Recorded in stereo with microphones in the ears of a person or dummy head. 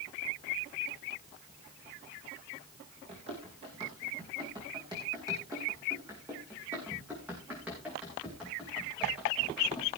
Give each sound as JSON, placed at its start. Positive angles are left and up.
{"t": 3.1, "sound": "running footsteps", "side_deg": -30, "distance_m": 4.0}